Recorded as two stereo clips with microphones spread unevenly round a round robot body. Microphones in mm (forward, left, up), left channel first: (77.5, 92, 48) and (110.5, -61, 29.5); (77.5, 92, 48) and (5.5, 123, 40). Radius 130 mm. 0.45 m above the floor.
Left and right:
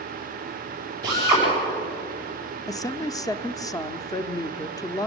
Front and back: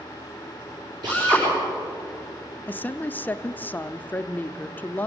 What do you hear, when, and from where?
1.0 s a drill: 150° right, 8.5 m
2.7 s a woman speaking: 40° left, 0.9 m